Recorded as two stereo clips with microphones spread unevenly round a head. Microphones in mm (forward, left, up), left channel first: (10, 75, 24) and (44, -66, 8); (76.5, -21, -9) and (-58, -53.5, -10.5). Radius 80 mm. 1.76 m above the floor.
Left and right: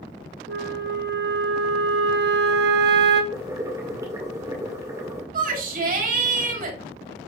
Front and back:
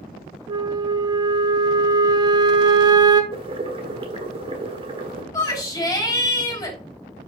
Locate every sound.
0.5 s a flute: 105° right, 1.1 m
3.3 s boiling: 145° right, 1.7 m
5.3 s a shout: 50° right, 3.5 m